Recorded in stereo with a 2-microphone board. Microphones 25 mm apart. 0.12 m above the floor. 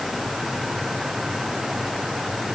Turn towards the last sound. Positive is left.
No sound to turn to.